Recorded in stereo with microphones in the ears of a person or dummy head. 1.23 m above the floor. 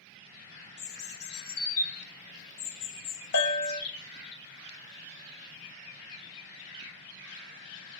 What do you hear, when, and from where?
0.8 s a bird: 55° left (ahead or behind), 1.7 m
3.3 s a bell: 60° left (ahead or behind), 0.9 m